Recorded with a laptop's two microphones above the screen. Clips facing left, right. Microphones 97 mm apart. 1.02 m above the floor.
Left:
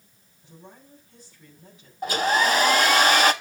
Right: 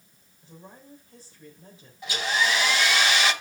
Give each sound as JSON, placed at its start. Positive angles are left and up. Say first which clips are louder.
{"t": 0.4, "sound": "a woman speaking", "louder": "right 1 dB", "side_deg": -35, "distance_m": 3.5}
{"t": 2.0, "sound": "a hair dryer", "louder": "left 5 dB", "side_deg": 45, "distance_m": 0.6}